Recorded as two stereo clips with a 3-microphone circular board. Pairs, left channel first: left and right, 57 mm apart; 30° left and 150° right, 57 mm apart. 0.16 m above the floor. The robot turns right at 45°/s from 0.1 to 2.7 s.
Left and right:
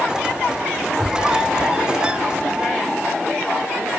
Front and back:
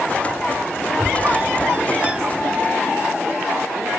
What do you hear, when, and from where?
1.0 s a squeak: 170° right, 0.7 m; by 2.6 s 95° right, 0.7 m